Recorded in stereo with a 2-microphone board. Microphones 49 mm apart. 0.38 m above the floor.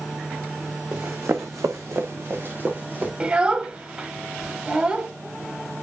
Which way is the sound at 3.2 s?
20° right (ahead or behind).